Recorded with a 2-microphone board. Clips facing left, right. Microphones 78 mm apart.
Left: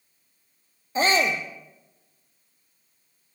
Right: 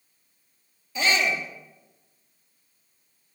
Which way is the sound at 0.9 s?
35° left (ahead or behind).